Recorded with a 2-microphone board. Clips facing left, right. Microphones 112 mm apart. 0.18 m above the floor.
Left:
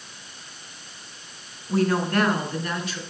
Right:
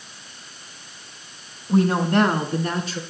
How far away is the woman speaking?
About 1.3 m.